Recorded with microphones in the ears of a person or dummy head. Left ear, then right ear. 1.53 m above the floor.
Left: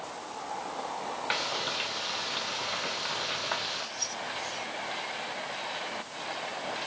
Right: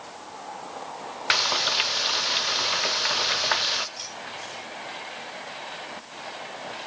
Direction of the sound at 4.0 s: 40° right (ahead or behind).